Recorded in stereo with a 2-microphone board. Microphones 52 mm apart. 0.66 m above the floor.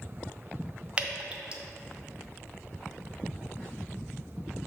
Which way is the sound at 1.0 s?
20° right (ahead or behind).